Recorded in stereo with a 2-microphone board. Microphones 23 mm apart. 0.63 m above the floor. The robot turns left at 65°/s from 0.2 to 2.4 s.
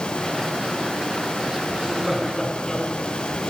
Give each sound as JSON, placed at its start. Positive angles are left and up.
{"t": 1.7, "sound": "laughter", "side_deg": -40, "distance_m": 8.0}